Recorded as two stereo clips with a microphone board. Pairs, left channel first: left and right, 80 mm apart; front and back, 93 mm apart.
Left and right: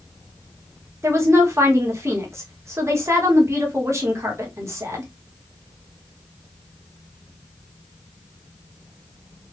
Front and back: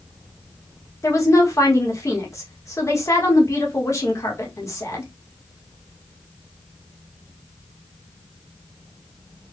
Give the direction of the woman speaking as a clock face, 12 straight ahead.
2 o'clock.